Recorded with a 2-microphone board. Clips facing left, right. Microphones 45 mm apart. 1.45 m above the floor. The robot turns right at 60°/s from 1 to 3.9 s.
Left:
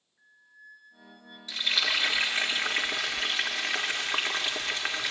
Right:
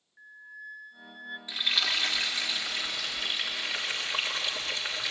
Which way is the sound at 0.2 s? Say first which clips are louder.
Right 10 dB; 85° right.